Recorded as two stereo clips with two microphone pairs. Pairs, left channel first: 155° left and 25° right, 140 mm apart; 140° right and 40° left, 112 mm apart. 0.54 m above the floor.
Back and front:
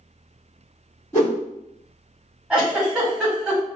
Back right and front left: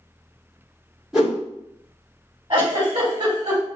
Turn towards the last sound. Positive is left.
turn(degrees=60)